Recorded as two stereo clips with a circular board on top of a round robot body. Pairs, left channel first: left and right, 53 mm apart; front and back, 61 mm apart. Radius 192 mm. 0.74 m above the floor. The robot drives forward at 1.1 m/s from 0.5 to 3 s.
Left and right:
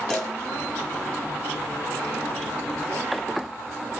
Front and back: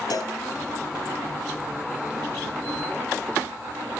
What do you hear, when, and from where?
0.1 s a cowbell: 5° left, 2.5 m